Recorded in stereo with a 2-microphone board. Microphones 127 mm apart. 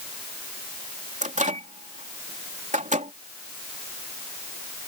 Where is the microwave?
85° right.